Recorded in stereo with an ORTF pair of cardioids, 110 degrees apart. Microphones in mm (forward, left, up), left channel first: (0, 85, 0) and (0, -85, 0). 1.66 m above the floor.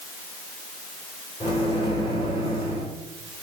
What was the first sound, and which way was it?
A microwave, 35° left.